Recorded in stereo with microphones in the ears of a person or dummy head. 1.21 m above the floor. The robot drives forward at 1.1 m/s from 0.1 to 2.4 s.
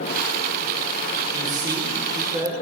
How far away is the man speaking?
About 4.5 m.